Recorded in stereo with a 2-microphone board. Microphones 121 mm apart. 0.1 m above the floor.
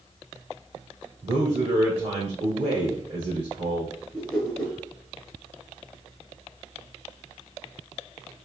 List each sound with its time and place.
1.2 s a man speaking: 55° right (ahead or behind), 1.9 m
4.1 s a whoosh: 10° left (ahead or behind), 1.7 m